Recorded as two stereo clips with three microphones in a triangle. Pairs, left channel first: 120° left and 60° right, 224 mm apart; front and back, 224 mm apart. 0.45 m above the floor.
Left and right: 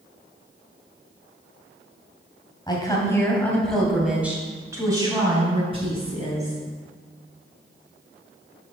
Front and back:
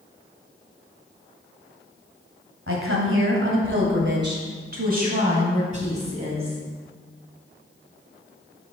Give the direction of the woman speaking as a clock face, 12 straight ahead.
6 o'clock.